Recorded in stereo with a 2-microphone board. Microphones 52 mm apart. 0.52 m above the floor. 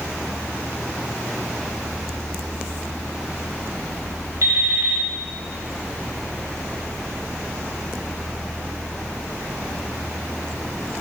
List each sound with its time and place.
4.4 s an alarm clock: 75° right (ahead or behind), 1.3 m